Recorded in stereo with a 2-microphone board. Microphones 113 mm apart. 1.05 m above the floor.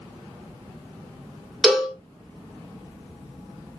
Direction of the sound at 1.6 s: 5° right (ahead or behind).